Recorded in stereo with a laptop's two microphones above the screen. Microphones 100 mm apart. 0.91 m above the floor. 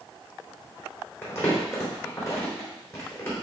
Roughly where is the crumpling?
Left.